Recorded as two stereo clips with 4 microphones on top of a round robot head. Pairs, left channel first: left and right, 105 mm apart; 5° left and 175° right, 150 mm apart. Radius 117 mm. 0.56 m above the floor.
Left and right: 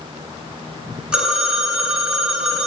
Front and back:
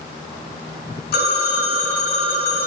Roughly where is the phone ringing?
Ahead.